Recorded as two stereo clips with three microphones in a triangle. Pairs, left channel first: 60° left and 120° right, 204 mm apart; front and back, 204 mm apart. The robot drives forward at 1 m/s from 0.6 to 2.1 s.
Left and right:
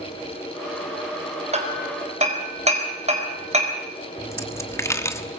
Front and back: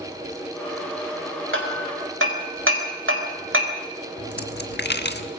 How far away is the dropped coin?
About 1.3 m.